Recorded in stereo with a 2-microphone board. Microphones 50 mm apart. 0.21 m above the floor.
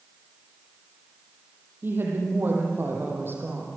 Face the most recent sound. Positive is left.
turn(degrees=-50)  # may be behind; listen again after turning